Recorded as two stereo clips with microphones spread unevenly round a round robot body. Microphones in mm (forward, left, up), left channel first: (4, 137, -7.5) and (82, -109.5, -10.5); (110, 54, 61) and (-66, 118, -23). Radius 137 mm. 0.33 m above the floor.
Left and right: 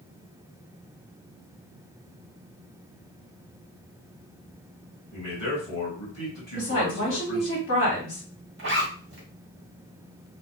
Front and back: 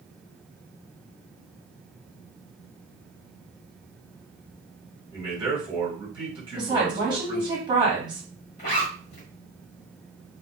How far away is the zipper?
About 1.2 m.